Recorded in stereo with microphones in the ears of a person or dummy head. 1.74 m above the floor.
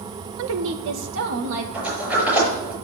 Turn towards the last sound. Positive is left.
turn(degrees=-5)  # may be behind; listen again after turning